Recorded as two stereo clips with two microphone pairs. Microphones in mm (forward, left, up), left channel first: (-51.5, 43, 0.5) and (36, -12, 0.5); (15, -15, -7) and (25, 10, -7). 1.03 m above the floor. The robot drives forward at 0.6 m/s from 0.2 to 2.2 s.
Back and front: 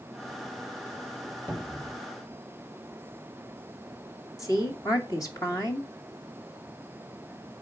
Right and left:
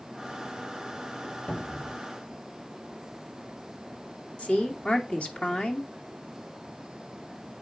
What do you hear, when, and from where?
1.5 s a cupboard door: 145° right, 1.9 m; by 1.9 s 150° right, 2 m
4.4 s a woman speaking: 155° right, 2 m